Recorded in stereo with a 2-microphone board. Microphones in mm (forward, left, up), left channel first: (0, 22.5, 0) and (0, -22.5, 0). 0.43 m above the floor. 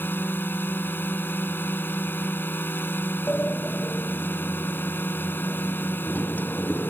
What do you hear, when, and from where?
0.0 s a drone: 50° left (ahead or behind)
3.3 s a sliding door: 40° left (ahead or behind)